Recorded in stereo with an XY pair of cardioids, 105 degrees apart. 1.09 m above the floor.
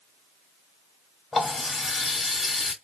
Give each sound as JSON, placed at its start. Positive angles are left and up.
{"t": 1.3, "sound": "a running tap", "azimuth_deg": 30, "distance_m": 1.2}